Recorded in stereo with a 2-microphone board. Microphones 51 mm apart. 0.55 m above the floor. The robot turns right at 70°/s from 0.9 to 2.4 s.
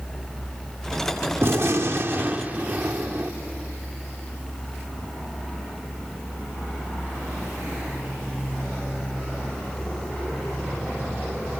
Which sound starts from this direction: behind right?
A gunshot, at 1.4 s.